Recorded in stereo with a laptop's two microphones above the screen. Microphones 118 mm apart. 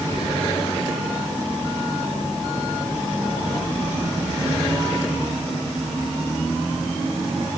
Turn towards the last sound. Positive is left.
No sound to turn to.